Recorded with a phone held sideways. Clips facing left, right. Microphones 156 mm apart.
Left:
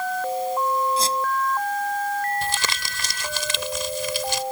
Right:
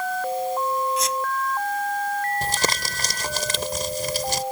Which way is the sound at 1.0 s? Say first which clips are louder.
Left 1 dB; 30° left (ahead or behind).